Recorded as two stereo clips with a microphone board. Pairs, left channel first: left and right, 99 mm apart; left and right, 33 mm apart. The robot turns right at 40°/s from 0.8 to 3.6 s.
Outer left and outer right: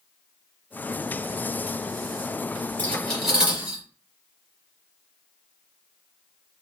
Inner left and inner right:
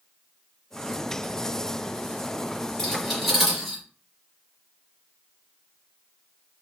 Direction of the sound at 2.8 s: 15° left (ahead or behind).